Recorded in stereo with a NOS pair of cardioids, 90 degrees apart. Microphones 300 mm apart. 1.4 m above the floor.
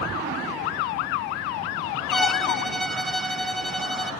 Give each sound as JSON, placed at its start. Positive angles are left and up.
{"t": 2.1, "sound": "a violin", "azimuth_deg": 0, "distance_m": 0.8}